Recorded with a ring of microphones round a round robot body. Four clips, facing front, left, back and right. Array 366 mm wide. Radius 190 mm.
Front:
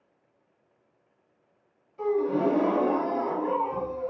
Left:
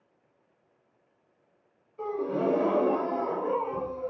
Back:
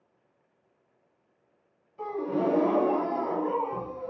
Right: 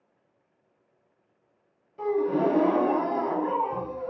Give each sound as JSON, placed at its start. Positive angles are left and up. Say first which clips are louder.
{"t": 2.0, "sound": "a gasp", "louder": "right 5 dB, front 4 dB", "azimuth_deg": -85, "distance_m": 0.7}